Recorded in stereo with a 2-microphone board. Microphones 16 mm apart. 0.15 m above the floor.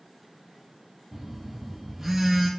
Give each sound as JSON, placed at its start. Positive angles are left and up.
{"t": 1.1, "sound": "a phone buzzing", "side_deg": -10, "distance_m": 0.6}